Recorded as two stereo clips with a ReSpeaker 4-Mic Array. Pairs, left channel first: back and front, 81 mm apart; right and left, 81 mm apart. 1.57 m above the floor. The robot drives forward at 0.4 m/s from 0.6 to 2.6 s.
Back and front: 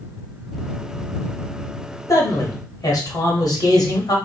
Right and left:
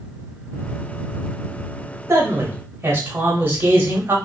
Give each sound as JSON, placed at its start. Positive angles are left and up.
{"t": 2.1, "sound": "a man speaking", "azimuth_deg": 140, "distance_m": 0.7}